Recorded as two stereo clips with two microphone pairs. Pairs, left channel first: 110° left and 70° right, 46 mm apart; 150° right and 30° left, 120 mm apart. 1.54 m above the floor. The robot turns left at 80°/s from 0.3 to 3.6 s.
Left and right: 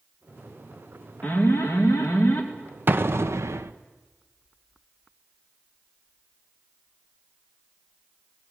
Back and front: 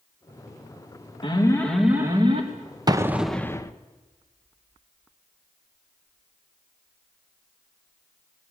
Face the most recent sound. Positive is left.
turn(degrees=-85)